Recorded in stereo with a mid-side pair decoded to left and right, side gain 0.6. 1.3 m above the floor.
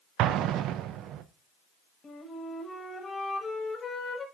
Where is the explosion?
60° right, 0.5 m.